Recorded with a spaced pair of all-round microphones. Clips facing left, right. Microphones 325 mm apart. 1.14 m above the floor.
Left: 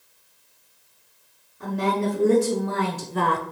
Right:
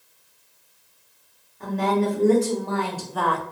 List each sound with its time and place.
1.6 s a woman speaking: 10° left (ahead or behind), 1.4 m; by 3.4 s 35° left (ahead or behind), 0.6 m